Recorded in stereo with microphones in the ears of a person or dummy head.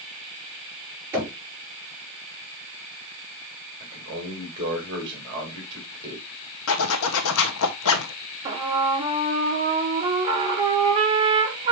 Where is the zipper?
80° left, 1.1 m.